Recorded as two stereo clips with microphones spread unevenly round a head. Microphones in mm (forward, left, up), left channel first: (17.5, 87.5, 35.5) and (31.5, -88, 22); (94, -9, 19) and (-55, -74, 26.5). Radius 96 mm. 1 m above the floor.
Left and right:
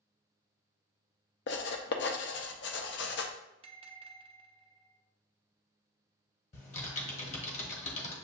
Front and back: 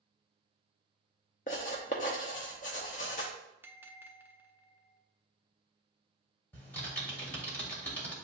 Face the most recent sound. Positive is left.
turn(degrees=100)